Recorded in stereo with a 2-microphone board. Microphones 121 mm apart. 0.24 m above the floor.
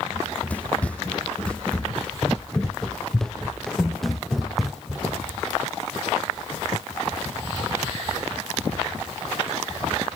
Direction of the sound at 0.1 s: 10° left (ahead or behind).